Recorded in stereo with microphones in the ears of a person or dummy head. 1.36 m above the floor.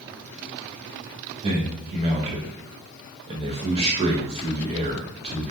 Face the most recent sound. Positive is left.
turn(degrees=-30)  # may be behind; listen again after turning